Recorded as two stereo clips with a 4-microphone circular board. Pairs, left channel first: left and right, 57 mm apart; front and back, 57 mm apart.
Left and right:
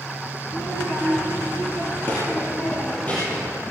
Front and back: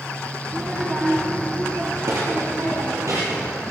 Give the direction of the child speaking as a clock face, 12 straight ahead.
8 o'clock.